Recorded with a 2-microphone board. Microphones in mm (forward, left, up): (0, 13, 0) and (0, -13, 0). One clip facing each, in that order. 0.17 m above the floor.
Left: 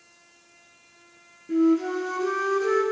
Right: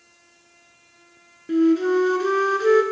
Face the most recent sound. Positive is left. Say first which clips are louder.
# right 3 dB
turn(degrees=-60)  # may be behind; listen again after turning